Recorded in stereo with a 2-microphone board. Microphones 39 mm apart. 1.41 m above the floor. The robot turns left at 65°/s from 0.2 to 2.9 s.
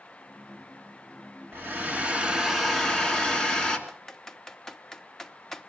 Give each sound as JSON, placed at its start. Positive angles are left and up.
{"t": 1.5, "sound": "a hair dryer", "azimuth_deg": -110, "distance_m": 2.5}
{"t": 3.9, "sound": "typing on a keyboard", "side_deg": 10, "distance_m": 0.9}